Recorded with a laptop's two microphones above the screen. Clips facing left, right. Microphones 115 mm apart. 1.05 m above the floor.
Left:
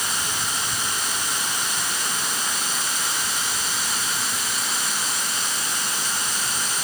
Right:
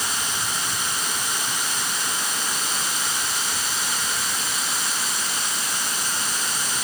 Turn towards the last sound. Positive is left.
No sound to turn to.